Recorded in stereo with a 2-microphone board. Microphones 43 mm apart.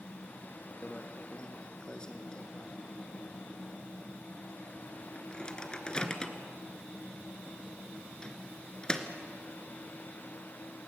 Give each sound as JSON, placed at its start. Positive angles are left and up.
{"t": 0.8, "sound": "a microwave", "side_deg": 20, "distance_m": 1.5}